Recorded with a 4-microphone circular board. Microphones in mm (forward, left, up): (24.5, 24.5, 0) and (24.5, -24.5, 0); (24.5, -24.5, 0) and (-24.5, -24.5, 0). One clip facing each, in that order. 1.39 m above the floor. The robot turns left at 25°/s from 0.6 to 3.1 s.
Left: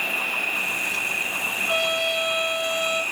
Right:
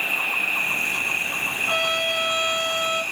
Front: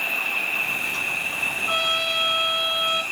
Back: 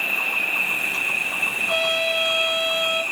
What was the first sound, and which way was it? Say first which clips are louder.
An insect: right 1 dB, back 2 dB; 130° right.